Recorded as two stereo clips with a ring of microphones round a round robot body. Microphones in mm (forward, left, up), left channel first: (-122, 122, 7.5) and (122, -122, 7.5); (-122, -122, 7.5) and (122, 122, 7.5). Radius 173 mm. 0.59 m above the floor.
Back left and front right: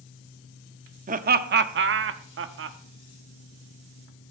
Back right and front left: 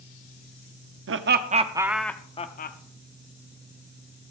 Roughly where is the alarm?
No alarm in this recording.